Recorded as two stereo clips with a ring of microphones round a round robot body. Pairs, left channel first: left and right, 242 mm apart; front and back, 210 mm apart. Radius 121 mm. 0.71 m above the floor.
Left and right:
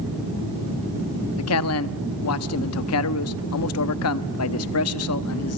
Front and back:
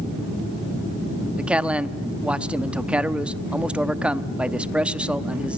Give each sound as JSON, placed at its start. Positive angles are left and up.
{"t": 1.4, "sound": "a man speaking", "azimuth_deg": 95, "distance_m": 0.8}